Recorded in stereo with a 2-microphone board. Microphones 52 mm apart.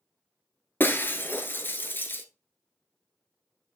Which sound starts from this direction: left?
Breaking glass, at 0.8 s.